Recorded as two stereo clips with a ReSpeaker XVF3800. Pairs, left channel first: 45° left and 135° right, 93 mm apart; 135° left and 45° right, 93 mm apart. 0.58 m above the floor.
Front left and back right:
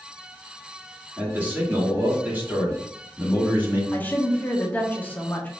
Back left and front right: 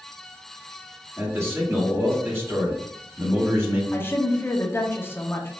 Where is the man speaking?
80° right, 1.3 m.